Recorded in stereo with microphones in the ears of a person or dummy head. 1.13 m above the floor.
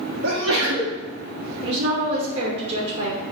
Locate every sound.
0.2 s a sneeze: 70° right (ahead or behind), 0.6 m
1.6 s a woman speaking: 50° right (ahead or behind), 0.6 m